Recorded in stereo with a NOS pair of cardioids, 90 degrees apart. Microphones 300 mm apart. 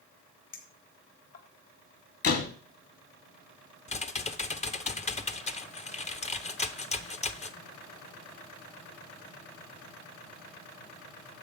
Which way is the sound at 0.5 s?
60° left.